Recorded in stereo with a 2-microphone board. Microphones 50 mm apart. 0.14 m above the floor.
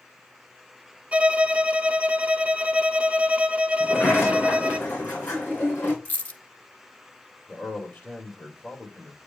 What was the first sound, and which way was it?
A violin, 25° right (ahead or behind).